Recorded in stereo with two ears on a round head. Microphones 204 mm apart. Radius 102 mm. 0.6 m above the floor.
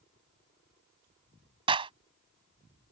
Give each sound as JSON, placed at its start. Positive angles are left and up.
{"t": 1.7, "sound": "a clap", "side_deg": -25}